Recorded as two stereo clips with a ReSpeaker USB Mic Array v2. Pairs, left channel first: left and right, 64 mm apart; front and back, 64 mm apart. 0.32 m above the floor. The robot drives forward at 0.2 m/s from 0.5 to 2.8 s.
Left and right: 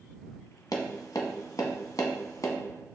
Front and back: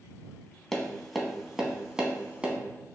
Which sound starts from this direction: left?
Tapping, at 0.7 s.